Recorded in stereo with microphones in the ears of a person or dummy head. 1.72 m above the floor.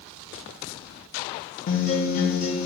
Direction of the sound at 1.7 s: 40° left (ahead or behind).